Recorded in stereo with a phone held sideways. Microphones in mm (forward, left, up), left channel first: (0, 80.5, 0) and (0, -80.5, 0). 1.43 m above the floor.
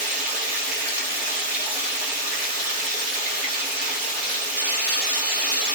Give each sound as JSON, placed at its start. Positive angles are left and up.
{"t": 0.0, "sound": "running water", "side_deg": -5, "distance_m": 1.2}